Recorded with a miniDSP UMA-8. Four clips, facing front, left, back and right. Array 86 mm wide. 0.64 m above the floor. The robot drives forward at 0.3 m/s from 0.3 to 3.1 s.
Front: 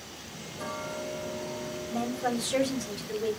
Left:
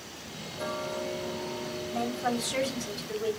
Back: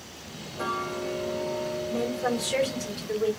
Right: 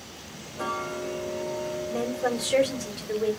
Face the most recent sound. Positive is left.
turn(degrees=-130)